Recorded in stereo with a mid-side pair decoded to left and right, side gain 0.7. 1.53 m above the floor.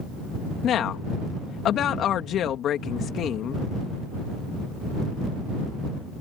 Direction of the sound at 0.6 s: 45° left.